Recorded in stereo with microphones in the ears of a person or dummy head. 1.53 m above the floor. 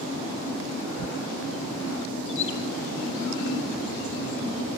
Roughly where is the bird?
Left.